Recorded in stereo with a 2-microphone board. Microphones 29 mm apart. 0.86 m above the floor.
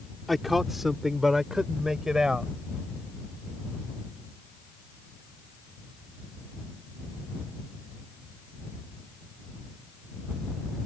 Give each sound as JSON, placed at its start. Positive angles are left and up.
{"t": 0.3, "sound": "a man speaking", "side_deg": -5}